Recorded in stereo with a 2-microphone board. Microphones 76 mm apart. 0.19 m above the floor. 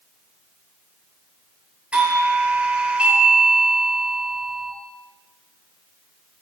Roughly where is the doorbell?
Centre.